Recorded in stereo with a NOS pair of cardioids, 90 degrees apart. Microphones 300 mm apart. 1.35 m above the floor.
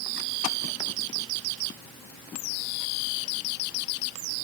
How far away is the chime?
No chime in this recording.